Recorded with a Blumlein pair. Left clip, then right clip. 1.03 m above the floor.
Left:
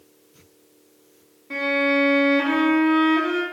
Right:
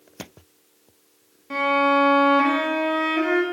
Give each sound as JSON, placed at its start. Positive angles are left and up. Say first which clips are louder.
{"t": 1.5, "sound": "a violin", "louder": "right 2 dB", "azimuth_deg": -15, "distance_m": 1.8}